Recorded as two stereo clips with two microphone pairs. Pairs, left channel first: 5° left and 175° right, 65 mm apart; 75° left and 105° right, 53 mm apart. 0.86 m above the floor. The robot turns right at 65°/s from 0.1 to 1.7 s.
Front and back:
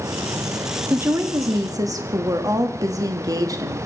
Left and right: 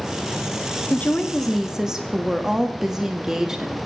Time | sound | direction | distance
0.9 | a woman speaking | 125° left | 1.2 m